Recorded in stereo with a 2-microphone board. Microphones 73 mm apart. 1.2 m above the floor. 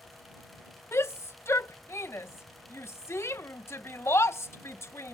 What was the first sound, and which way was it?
A shout, 40° left (ahead or behind).